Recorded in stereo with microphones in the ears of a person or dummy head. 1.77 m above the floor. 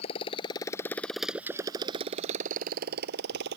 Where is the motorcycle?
35° left (ahead or behind); by 3.6 s 65° right (ahead or behind).